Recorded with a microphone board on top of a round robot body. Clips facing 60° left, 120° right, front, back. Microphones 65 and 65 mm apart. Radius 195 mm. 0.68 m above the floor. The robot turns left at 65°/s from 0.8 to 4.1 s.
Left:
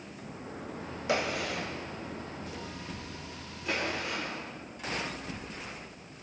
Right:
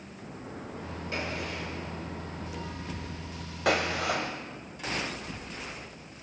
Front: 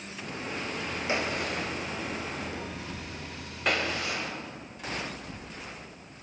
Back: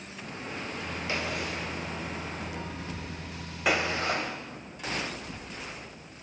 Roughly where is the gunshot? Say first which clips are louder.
Left 5 dB, front 3 dB; left.